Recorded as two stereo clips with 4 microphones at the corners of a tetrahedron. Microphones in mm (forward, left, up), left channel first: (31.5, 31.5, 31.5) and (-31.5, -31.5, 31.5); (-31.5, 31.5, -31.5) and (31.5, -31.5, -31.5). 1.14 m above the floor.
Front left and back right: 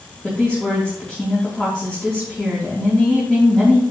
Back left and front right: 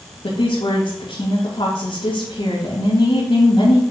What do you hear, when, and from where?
0.2 s a woman speaking: 130° left, 3 m